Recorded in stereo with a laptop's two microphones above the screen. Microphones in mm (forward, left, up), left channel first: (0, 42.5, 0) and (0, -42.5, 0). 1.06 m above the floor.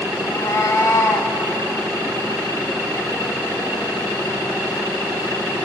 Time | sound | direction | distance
0.2 | a cat meowing | 35° left (ahead or behind) | 1.7 m